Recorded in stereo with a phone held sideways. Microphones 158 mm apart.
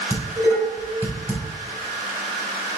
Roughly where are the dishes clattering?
Centre.